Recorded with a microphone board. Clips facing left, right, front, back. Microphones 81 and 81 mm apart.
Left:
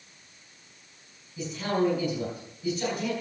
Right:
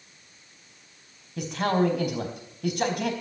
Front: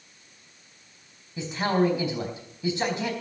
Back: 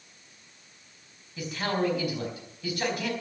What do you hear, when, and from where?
1.4 s a man speaking: 65° right, 4 m